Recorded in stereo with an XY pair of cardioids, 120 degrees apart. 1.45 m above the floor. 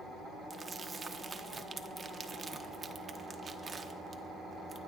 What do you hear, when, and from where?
0.5 s crumpling: 25° right, 1.1 m